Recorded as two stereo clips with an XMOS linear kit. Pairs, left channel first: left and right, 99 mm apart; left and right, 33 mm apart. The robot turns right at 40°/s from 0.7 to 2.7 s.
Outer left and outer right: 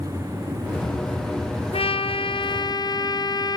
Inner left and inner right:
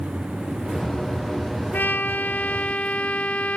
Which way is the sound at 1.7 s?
95° left.